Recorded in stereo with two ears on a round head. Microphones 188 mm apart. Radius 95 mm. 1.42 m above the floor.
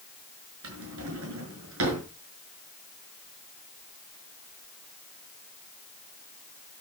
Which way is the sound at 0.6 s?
75° right (ahead or behind).